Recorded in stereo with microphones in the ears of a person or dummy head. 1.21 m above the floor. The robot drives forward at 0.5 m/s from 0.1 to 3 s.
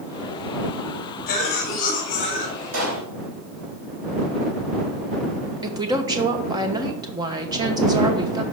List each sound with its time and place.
1.3 s a cough: 45° left (ahead or behind), 2.5 m; by 3.0 s 30° left (ahead or behind), 3 m
2.7 s a pop: 80° right, 4 m
5.6 s a woman speaking: 20° right (ahead or behind), 1.0 m